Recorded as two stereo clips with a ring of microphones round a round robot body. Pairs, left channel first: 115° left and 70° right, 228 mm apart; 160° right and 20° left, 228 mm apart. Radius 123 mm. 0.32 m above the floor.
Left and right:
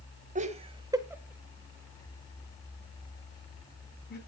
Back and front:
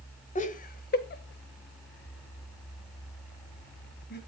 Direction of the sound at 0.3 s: 110° right.